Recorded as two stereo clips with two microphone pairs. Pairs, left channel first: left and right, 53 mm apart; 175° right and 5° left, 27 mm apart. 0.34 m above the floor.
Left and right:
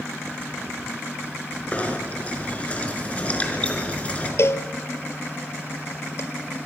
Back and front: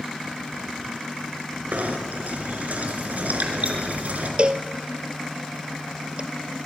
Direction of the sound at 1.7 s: 30° left.